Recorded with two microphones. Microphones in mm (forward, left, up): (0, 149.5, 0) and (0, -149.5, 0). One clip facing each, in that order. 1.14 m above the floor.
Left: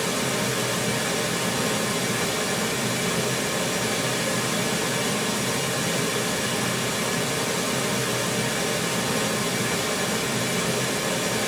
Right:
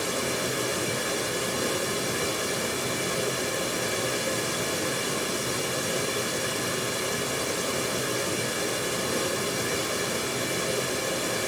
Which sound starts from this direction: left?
Running water, at 0.0 s.